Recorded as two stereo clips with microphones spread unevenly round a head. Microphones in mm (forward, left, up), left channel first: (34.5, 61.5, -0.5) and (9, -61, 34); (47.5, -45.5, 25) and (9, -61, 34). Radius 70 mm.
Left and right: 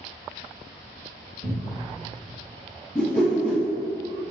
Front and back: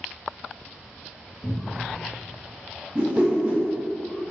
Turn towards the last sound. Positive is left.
turn(degrees=175)